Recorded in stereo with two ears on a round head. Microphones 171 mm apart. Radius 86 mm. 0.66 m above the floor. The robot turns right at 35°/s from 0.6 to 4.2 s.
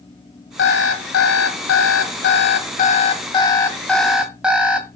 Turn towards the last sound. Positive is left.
turn(degrees=-175)